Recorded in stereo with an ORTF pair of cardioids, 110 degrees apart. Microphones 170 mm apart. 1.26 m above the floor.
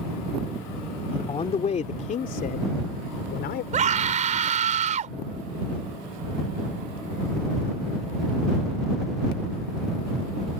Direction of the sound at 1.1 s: 30° left.